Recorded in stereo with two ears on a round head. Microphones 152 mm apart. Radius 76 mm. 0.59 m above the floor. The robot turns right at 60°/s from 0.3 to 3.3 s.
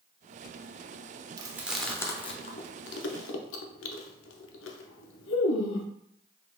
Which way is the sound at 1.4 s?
25° right (ahead or behind).